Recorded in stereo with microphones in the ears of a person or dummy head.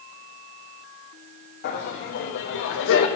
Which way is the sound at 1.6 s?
55° left (ahead or behind).